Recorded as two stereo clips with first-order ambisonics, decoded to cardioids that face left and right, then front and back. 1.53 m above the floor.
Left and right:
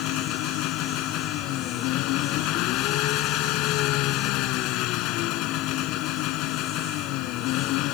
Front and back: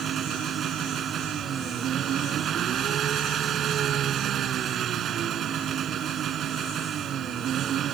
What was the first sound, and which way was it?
An engine running, 125° left.